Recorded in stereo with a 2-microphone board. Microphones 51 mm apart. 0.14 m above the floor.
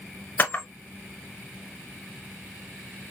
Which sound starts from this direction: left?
A camera shutter, at 0.4 s.